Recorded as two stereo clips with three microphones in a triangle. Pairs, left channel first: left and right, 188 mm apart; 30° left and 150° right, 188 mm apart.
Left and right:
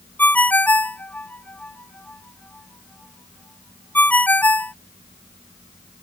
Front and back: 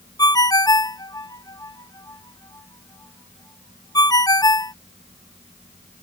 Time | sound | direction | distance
0.2 | a ringtone | 30° left | ?